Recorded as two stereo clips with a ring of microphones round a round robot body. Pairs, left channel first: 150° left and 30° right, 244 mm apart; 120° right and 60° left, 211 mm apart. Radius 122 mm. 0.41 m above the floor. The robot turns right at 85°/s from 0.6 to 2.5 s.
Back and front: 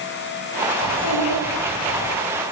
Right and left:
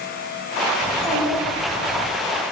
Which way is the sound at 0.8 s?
135° left.